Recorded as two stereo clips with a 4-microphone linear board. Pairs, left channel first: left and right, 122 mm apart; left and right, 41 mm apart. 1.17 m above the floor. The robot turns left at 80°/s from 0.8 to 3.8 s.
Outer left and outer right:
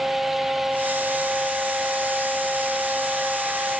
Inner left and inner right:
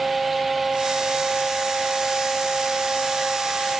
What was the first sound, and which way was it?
Only background noise.